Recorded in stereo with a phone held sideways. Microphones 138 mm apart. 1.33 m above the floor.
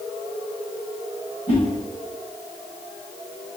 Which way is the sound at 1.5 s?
50° left (ahead or behind).